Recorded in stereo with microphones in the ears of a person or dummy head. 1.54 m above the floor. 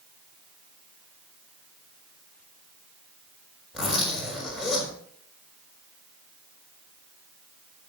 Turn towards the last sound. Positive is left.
turn(degrees=0)  # may be behind; listen again after turning